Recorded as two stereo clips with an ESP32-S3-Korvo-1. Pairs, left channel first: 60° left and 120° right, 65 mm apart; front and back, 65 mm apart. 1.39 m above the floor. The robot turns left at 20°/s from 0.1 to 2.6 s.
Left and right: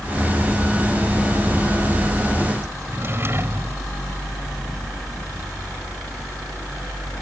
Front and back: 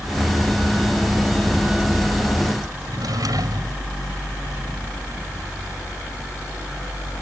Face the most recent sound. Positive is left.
turn(degrees=-170)